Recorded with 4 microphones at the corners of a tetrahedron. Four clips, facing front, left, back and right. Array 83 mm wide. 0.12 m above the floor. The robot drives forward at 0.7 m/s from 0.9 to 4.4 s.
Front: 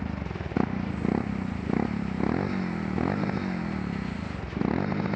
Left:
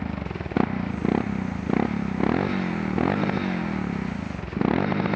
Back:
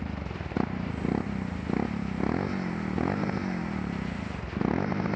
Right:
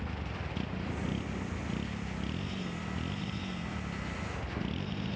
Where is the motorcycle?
85° left; by 5.2 s 95° left.